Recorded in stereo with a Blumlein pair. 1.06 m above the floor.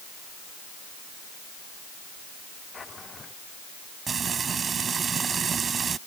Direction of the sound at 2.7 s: 15° left.